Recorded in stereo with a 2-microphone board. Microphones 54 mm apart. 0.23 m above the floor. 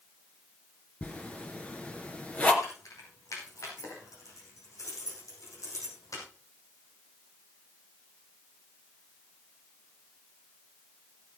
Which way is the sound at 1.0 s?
25° left (ahead or behind).